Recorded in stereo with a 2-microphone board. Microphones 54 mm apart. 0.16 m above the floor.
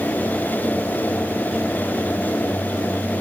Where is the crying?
No crying in this recording.